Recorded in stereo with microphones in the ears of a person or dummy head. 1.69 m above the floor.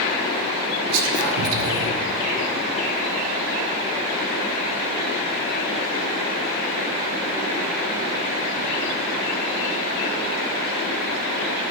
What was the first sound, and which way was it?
Whispering, 75° right (ahead or behind).